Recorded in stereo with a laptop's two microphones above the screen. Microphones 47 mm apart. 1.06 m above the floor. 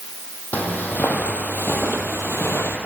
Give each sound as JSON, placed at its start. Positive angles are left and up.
{"t": 0.5, "sound": "footsteps", "side_deg": 35, "distance_m": 2.5}